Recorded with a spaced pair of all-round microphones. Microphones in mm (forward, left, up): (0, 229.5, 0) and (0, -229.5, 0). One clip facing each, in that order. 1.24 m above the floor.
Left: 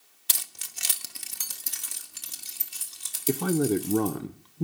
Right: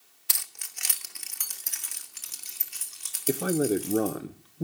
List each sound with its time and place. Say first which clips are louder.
0.3 s keys jangling: left 3 dB; 55° left (ahead or behind), 0.7 m
3.3 s a man speaking: left 1 dB; 15° left (ahead or behind), 0.7 m